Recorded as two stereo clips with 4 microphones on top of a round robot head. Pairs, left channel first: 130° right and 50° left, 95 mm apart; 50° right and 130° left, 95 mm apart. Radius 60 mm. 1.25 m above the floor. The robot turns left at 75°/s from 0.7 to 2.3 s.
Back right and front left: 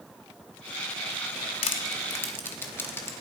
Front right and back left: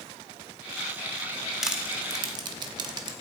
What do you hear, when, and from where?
1.6 s crushing: 145° right, 0.8 m; by 3.1 s 165° left, 0.8 m